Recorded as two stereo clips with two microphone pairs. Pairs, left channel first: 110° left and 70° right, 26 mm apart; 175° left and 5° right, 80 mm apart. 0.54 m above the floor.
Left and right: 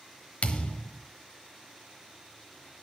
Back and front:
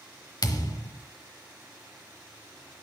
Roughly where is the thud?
Behind left.